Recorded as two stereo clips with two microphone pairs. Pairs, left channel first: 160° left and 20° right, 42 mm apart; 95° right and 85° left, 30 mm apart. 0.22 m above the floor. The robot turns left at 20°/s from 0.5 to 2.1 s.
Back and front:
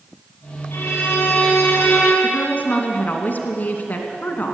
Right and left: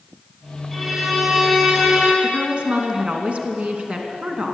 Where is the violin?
170° left, 6.5 m; by 2.1 s 145° left, 6.5 m.